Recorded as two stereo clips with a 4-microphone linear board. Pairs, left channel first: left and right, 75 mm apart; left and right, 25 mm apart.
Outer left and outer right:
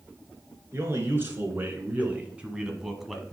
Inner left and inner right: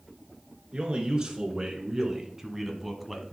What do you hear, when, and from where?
0.7 s a man speaking: 35° right (ahead or behind), 2.5 m; by 3.3 s 5° left (ahead or behind), 1.3 m